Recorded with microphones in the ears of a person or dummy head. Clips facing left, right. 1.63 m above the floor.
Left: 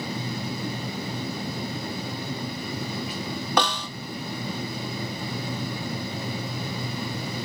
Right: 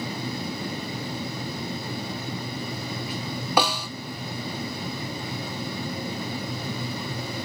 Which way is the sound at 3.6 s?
5° right (ahead or behind).